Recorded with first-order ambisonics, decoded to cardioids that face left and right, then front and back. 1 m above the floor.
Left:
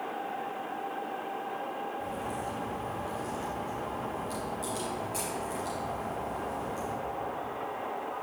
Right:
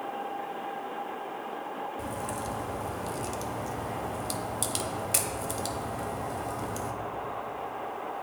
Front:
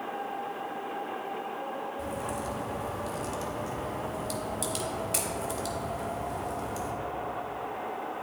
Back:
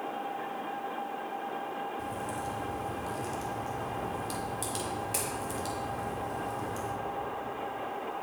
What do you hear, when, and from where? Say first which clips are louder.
2.0 s a crack: right 1 dB, front 2 dB; 80° right, 0.9 m